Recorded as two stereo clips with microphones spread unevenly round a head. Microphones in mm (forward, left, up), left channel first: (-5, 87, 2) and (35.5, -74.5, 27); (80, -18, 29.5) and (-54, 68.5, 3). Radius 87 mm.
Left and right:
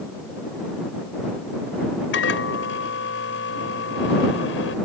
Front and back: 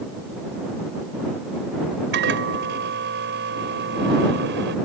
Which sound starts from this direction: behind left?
A microwave, at 2.1 s.